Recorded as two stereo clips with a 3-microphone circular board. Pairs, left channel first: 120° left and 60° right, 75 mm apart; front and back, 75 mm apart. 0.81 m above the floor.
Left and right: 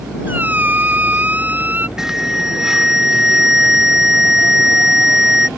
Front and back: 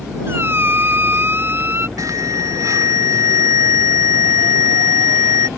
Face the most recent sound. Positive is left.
turn(degrees=-145)